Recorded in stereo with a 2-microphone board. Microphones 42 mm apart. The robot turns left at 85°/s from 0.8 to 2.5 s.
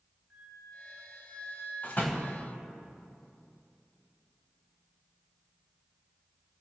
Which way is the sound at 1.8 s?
45° left (ahead or behind).